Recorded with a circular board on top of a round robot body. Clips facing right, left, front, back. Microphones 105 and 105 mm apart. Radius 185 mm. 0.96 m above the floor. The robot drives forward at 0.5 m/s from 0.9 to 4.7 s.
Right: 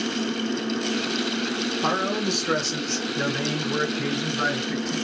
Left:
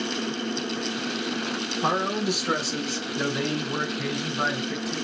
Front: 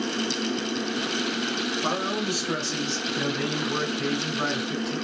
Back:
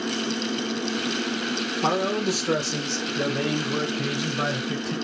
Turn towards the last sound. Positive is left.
turn(degrees=175)